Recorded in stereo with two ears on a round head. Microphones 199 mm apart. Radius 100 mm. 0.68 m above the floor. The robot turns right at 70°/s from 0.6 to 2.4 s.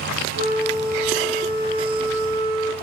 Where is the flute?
110° right, 1.2 m; by 2.7 s 15° left, 1.2 m.